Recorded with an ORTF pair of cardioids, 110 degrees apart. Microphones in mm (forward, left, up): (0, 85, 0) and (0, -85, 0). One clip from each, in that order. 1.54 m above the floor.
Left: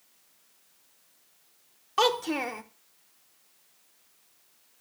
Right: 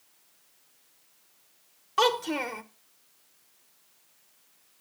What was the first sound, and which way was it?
A child speaking, 5° left.